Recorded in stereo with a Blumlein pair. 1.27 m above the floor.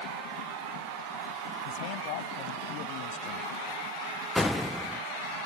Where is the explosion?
10° left.